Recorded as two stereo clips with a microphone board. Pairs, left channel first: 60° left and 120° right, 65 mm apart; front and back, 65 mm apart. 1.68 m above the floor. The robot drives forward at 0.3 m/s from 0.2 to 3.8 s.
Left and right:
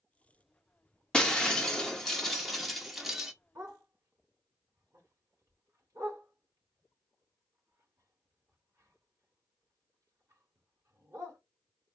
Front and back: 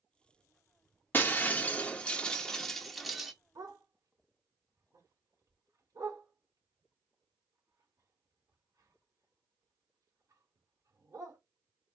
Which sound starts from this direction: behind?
A dog barking, at 3.5 s.